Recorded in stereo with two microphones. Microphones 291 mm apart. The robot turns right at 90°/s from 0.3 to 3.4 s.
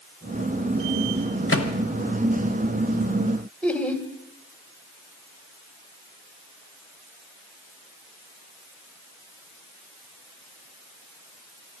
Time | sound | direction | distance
1.5 | a microwave | 45° left (ahead or behind) | 1.1 m
3.6 | laughter | 5° left (ahead or behind) | 1.2 m